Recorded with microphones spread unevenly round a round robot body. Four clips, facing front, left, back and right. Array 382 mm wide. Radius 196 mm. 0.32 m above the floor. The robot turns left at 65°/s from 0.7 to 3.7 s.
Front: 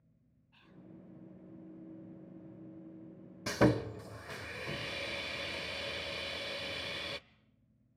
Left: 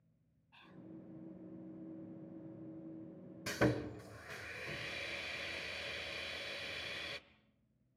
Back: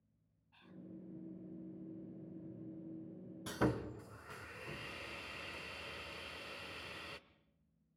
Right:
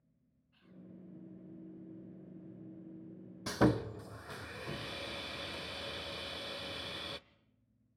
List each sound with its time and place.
0.5 s whispering: 85° left, 2 m; by 0.8 s 75° left, 2 m
3.5 s sawing: 10° right, 0.7 m; by 7.2 s 25° right, 0.7 m